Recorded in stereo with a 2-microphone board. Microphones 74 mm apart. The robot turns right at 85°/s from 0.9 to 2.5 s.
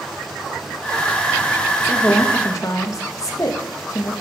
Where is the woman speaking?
Straight ahead, 1.4 m; by 4.1 s 60° left, 1.4 m.